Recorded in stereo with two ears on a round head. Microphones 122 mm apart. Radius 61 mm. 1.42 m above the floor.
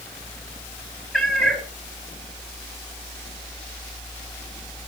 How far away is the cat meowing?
About 4 m.